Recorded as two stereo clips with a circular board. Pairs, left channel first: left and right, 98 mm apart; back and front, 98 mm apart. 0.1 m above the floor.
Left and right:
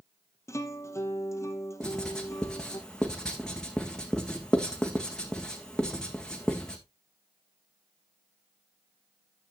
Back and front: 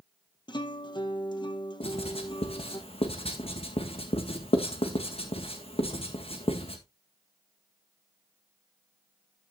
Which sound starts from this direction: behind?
Writing, at 1.8 s.